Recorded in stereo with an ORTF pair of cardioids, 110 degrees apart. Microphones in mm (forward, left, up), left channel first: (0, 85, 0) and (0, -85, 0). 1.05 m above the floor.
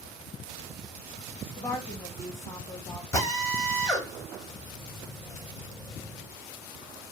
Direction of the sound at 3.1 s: 20° left.